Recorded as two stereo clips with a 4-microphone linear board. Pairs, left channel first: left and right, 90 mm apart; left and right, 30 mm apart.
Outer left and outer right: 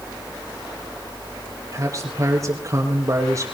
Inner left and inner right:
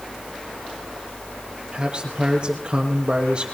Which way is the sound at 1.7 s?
35° right (ahead or behind).